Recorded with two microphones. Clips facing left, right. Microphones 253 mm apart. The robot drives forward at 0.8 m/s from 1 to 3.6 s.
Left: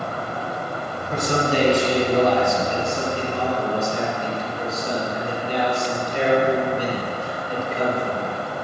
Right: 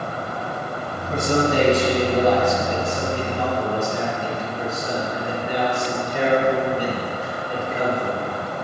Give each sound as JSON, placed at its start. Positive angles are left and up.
{"t": 1.1, "sound": "a man speaking", "side_deg": -25, "distance_m": 2.0}